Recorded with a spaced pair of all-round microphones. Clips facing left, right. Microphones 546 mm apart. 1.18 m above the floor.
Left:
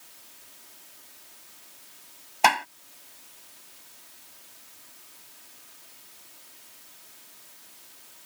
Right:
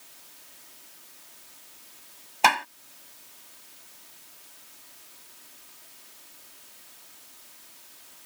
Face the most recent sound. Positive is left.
turn(degrees=0)  # may be behind; listen again after turning